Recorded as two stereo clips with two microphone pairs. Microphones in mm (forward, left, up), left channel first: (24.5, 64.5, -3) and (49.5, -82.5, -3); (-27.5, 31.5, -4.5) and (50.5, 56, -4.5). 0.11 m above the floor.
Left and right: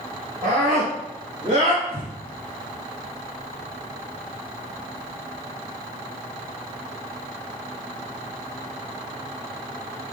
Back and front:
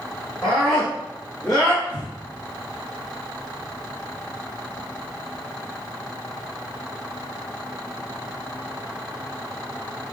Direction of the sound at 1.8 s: 150° right.